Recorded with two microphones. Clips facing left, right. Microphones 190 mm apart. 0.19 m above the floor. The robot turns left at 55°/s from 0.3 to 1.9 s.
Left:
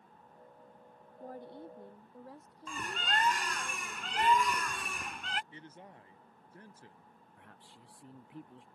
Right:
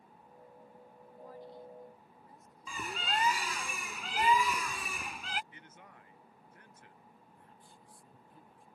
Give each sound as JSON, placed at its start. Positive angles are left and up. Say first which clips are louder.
{"t": 1.2, "sound": "a woman speaking", "louder": "left 3 dB", "azimuth_deg": 135}
{"t": 2.7, "sound": "a bird", "louder": "even", "side_deg": -5}
{"t": 5.5, "sound": "a man speaking", "louder": "left 5 dB", "side_deg": 35}
{"t": 7.4, "sound": "a man speaking", "louder": "left 1 dB", "side_deg": 80}